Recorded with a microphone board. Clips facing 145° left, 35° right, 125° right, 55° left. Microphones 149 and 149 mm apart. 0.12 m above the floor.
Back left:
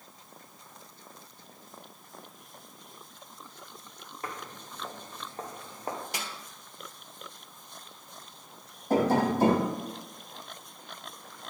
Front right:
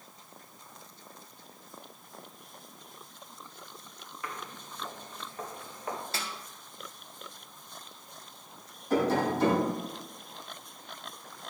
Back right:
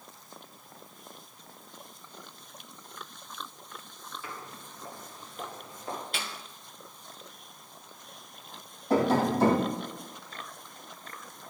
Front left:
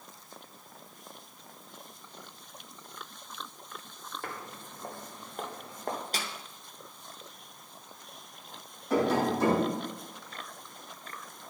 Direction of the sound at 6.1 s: 80° left.